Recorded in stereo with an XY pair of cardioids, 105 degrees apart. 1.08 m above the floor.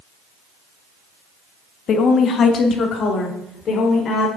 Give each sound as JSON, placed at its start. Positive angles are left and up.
{"t": 1.9, "sound": "a woman speaking", "azimuth_deg": 60, "distance_m": 1.2}